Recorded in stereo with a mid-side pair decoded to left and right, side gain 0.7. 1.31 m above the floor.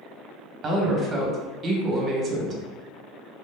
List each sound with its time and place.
0.6 s a woman speaking: 40° right, 0.9 m